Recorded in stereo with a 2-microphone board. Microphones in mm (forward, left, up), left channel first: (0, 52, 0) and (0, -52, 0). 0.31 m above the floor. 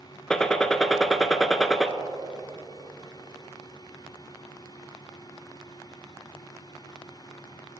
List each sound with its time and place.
0.3 s a gunshot: 5° left (ahead or behind), 0.6 m